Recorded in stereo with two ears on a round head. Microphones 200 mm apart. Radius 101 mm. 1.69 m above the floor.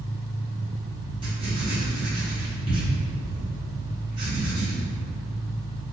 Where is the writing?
20° right (ahead or behind), 1.2 m.